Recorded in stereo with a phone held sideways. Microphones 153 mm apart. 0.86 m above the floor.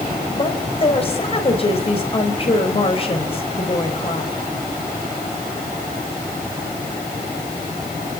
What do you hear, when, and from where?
0.3 s a woman speaking: 35° left (ahead or behind), 4 m